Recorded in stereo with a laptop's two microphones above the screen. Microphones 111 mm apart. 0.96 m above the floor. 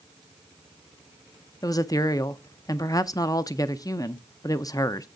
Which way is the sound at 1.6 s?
35° left (ahead or behind).